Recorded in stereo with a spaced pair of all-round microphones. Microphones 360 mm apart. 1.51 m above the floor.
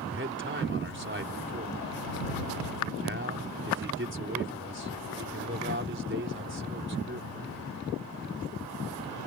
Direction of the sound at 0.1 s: 30° right (ahead or behind).